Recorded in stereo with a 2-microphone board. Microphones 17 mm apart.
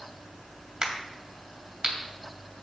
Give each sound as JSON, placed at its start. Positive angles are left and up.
{"t": 0.8, "sound": "a crack", "side_deg": -40, "distance_m": 2.5}